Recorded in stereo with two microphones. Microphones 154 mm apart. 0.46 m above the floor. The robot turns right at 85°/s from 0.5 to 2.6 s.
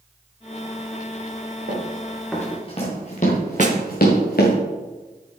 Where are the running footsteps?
55° right (ahead or behind), 4 m; by 4.5 s 75° left (ahead or behind), 3 m.